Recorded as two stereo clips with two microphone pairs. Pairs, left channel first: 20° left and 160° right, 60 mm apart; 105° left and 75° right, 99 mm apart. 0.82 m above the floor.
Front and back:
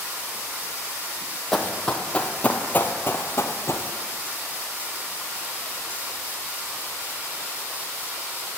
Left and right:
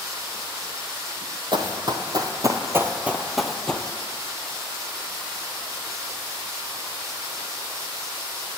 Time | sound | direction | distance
1.5 | running footsteps | 65° right | 1.6 m